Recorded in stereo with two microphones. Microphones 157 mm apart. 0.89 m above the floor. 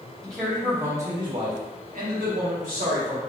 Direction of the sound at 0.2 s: 5° left (ahead or behind).